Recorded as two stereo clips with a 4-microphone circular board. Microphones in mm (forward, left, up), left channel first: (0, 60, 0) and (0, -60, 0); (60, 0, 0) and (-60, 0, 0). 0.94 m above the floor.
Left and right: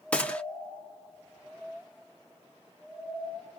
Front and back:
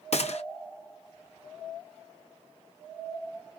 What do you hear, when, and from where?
0.1 s a gunshot: 15° left, 0.6 m